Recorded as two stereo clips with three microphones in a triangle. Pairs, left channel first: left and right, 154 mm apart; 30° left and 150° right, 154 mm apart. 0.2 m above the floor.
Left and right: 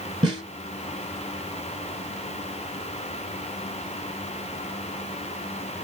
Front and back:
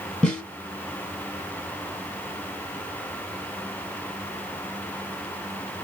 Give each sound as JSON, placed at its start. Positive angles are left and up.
{"t": 0.2, "sound": "a snare drum", "azimuth_deg": -50, "distance_m": 1.4}